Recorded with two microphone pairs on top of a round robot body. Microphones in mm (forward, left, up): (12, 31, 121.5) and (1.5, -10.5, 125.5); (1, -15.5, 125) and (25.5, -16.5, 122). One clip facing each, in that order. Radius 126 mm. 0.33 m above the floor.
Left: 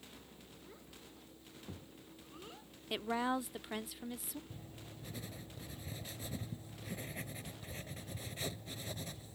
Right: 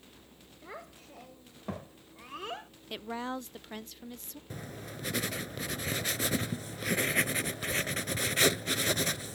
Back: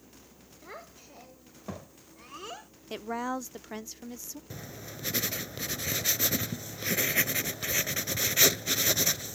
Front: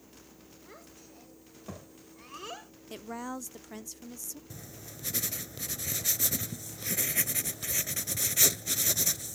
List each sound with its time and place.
0.6 s a child speaking: 125° right; by 2.7 s 85° right
2.9 s a woman speaking: 130° left
4.5 s writing: 115° right